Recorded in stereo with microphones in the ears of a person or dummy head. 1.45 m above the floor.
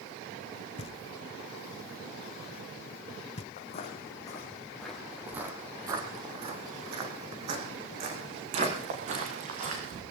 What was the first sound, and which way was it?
Knocking, 35° left (ahead or behind).